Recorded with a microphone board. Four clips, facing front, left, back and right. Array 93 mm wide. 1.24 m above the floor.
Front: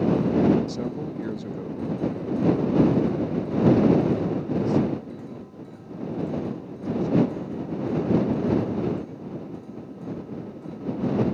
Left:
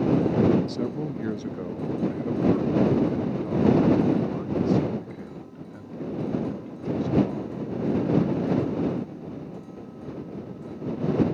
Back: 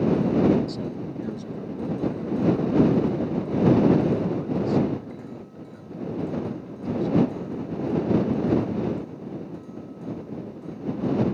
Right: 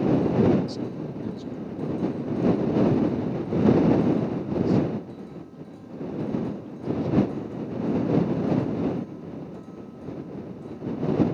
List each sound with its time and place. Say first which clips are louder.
0.7 s a man speaking: left 3 dB, front 1 dB; 50° left; by 8.1 s 110° left